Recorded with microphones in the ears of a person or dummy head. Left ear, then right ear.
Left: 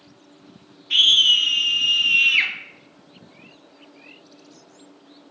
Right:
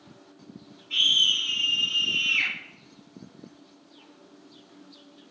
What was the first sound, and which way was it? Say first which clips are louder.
A scream: left 6 dB; 45° left (ahead or behind).